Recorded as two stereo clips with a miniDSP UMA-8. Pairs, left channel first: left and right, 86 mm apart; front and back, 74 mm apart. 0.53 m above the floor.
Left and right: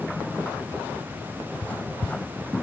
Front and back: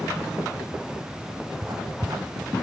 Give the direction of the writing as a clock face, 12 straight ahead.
7 o'clock.